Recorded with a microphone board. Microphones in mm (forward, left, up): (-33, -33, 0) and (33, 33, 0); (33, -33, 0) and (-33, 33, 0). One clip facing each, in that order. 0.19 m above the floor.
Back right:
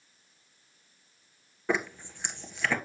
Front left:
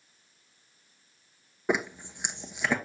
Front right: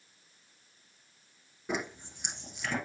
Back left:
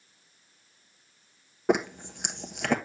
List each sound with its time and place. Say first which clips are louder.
1.7 s a zipper: front left 1 dB, back left 10 dB; 115° left, 1.0 m